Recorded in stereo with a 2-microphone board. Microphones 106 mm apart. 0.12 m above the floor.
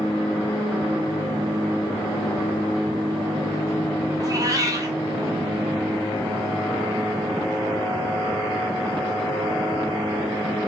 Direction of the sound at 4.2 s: 35° right (ahead or behind).